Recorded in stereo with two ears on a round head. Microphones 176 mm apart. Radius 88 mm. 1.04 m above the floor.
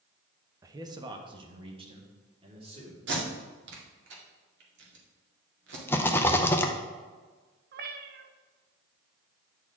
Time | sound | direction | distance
0.6 | a man speaking | 15° right (ahead or behind) | 0.6 m
3.1 | tape being pulled | 65° right (ahead or behind) | 1.7 m
5.9 | a rattle | 10° left (ahead or behind) | 0.6 m
7.7 | a cat meowing | 50° right (ahead or behind) | 0.6 m